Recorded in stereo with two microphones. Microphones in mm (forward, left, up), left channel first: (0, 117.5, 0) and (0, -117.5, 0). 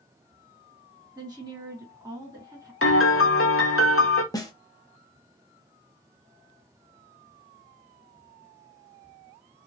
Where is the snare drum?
15° left (ahead or behind), 0.7 m.